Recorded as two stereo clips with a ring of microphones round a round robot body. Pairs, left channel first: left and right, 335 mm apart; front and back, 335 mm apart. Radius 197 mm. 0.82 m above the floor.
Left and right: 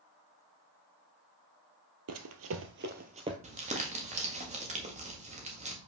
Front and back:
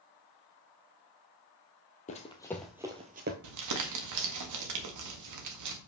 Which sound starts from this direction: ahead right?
Running footsteps, at 2.1 s.